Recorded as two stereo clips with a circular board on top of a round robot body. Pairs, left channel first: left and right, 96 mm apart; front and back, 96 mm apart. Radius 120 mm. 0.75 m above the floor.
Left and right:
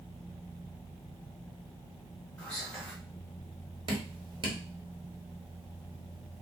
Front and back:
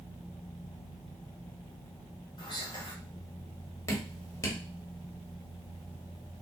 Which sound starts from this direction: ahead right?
Dripping, at 3.9 s.